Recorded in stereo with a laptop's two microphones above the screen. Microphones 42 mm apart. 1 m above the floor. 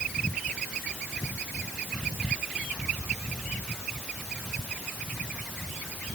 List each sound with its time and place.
Only background noise.